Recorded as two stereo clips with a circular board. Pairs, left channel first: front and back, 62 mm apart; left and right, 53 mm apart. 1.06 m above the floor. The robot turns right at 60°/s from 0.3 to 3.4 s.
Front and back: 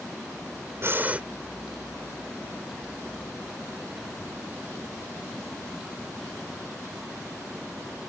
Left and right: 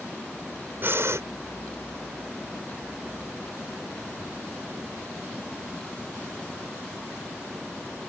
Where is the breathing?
135° right; by 1.2 s 110° right.